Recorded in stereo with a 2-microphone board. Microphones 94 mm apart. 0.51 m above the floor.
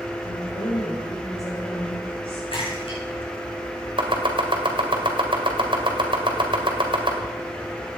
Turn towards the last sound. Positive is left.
turn(degrees=-65)  # may be behind; listen again after turning